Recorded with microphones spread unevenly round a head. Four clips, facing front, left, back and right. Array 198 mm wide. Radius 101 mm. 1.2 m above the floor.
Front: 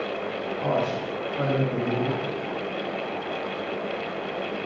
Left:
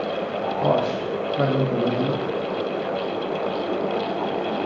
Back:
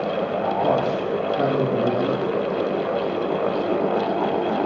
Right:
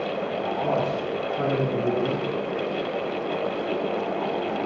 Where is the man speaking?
100° left, 3 m.